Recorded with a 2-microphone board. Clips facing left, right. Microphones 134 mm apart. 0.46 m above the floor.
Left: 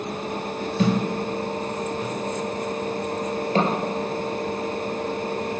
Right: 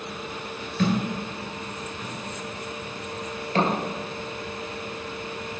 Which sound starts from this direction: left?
A thud, at 0.8 s.